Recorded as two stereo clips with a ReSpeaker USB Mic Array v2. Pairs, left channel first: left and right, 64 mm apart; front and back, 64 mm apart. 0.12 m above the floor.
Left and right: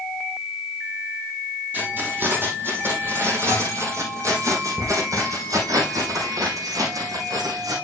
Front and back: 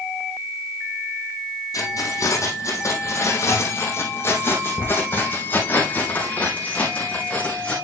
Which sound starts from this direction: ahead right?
Keys jangling, at 1.7 s.